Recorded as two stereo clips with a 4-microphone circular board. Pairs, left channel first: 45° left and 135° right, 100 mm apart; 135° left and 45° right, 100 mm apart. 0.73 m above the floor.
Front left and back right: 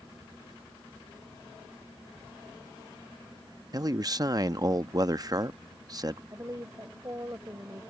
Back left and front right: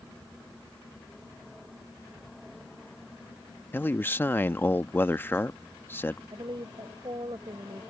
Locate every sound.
3.7 s a man speaking: 165° right
6.3 s a woman speaking: 80° right